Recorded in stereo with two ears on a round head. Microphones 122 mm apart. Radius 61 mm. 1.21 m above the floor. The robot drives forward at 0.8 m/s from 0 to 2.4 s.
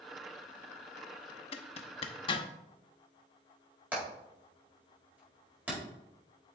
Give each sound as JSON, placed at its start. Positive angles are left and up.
{"t": 1.5, "sound": "a zipper", "side_deg": 45, "distance_m": 0.7}
{"t": 3.9, "sound": "hammering", "side_deg": -10, "distance_m": 4.5}